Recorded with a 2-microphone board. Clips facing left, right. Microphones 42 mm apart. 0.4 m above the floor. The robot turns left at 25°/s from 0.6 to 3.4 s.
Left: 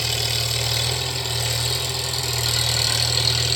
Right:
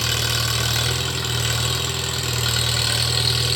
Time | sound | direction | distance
0.0 | an engine running | 95° right | 4 m